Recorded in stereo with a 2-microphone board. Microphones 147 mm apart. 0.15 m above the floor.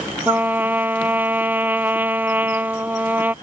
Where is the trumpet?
10° right (ahead or behind).